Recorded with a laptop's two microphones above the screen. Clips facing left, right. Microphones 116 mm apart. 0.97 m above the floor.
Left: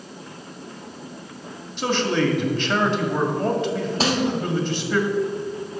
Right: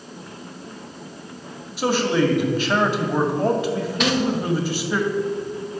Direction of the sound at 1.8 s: 10° right (ahead or behind).